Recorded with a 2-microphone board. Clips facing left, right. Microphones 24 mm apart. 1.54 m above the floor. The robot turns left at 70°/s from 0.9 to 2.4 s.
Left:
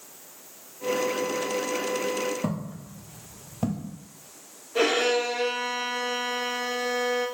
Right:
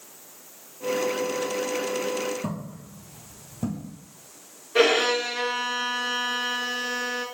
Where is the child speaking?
I don't hear a child speaking.